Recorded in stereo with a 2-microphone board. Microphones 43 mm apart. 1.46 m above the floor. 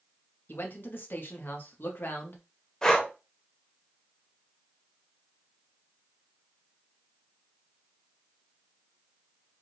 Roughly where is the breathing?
Centre.